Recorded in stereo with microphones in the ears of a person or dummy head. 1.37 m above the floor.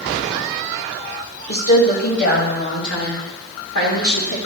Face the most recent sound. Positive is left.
turn(degrees=60)  # may be behind; listen again after turning